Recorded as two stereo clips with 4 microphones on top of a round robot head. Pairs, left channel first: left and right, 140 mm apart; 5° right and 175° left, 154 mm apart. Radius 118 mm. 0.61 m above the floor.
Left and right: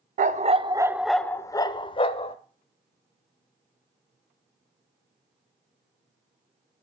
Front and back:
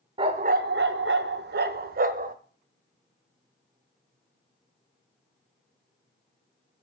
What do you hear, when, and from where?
0.2 s a dog barking: 120° right, 0.6 m; by 2.4 s 140° left, 1.0 m